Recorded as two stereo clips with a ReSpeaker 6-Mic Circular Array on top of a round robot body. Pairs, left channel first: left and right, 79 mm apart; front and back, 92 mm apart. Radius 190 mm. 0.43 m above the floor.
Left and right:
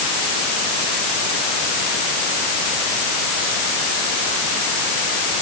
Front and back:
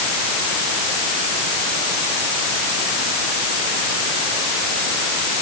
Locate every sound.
Only background noise.